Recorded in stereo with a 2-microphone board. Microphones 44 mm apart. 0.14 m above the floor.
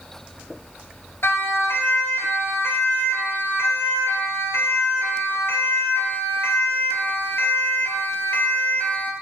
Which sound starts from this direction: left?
A siren, at 1.2 s.